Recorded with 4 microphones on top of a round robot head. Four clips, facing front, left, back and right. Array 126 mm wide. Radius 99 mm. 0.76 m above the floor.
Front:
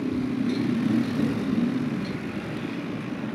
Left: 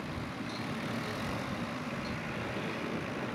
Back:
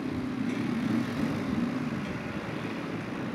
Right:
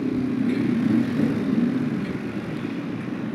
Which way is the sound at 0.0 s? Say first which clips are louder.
Right 16 dB, front 6 dB; 70° right.